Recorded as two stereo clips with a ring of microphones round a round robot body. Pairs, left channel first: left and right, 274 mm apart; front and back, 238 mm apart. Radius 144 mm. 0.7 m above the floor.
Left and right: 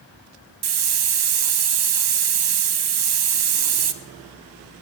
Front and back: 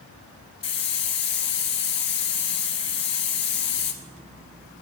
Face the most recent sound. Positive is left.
turn(degrees=-70)